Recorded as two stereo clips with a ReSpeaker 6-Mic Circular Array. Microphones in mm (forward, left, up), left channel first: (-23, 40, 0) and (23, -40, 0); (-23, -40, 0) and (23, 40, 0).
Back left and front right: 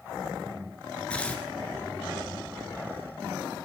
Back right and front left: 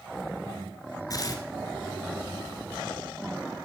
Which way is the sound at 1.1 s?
165° right.